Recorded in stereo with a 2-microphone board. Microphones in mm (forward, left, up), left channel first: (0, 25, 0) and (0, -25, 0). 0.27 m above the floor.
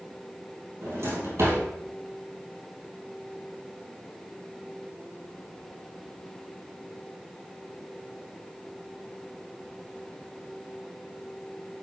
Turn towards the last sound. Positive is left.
turn(degrees=-65)  # may be behind; listen again after turning